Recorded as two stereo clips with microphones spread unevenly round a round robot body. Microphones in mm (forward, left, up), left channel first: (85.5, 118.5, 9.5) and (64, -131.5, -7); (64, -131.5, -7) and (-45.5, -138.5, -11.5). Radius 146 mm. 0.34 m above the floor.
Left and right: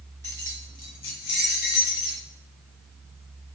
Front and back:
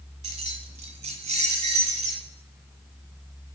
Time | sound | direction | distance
0.2 | keys jangling | 170° left | 1.3 m